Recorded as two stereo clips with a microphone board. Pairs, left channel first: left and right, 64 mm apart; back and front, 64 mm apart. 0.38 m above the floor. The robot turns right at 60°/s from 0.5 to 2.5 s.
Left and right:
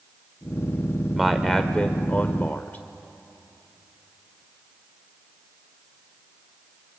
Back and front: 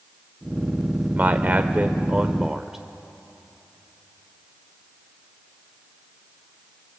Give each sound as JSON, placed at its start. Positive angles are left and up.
{"t": 1.1, "sound": "a man speaking", "azimuth_deg": -10, "distance_m": 0.9}